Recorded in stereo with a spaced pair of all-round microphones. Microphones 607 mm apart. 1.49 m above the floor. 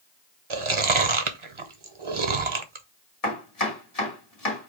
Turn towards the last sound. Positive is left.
turn(degrees=75)  # may be behind; listen again after turning